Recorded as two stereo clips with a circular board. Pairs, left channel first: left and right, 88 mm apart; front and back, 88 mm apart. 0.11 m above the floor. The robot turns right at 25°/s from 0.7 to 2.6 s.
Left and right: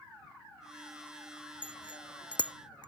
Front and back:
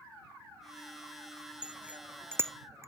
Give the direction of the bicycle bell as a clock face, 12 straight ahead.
9 o'clock.